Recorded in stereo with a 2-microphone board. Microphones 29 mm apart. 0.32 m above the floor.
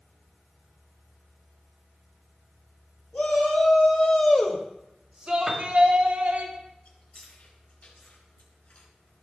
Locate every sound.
3.1 s a shout: 60° left (ahead or behind), 3 m; by 6.5 s 55° right (ahead or behind), 3 m
5.5 s a piano: 20° right (ahead or behind), 1.2 m
6.8 s chewing: 60° left (ahead or behind), 4 m